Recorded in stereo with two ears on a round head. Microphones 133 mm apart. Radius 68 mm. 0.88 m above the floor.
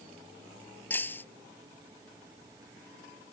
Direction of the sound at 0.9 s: 15° left (ahead or behind).